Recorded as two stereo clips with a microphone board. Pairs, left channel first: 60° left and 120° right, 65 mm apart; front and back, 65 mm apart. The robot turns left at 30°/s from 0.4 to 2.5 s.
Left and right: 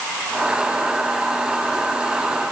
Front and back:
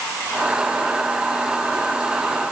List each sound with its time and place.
Only background noise.